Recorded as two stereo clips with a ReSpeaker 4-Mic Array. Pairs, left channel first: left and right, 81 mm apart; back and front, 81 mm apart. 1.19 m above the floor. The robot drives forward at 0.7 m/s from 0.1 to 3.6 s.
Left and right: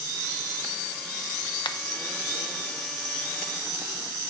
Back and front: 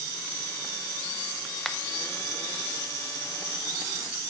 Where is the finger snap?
95° left, 0.8 m; by 1.8 s 100° left, 0.9 m.